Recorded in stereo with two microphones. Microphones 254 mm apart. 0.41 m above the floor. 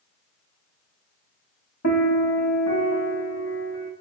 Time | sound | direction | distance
1.8 | a piano | 80° left | 1.2 m